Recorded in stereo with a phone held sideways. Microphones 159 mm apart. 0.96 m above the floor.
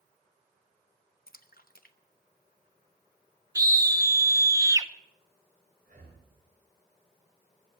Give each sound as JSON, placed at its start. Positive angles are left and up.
{"t": 1.3, "sound": "a splash", "side_deg": 65, "distance_m": 0.7}
{"t": 3.5, "sound": "a scream", "side_deg": -20, "distance_m": 0.7}
{"t": 5.8, "sound": "breathing", "side_deg": -70, "distance_m": 5.0}